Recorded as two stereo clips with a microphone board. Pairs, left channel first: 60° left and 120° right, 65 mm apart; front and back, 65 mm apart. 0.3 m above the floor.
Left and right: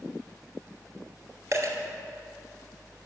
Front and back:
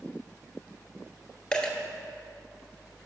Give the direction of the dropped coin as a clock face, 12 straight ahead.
3 o'clock.